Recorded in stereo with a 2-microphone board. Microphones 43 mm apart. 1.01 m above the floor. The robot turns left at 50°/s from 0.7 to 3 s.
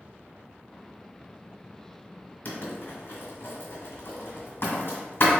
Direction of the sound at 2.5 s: 50° left (ahead or behind).